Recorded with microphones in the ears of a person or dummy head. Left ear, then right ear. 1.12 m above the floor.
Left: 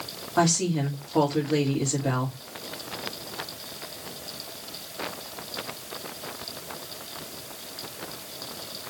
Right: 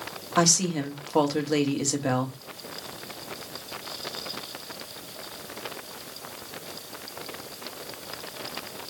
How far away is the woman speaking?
About 1.6 m.